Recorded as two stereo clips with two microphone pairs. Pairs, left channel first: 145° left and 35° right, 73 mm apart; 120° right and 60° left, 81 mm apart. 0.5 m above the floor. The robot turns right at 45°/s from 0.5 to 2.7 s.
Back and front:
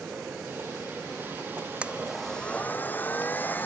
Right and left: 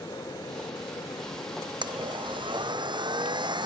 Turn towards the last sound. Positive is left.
turn(degrees=80)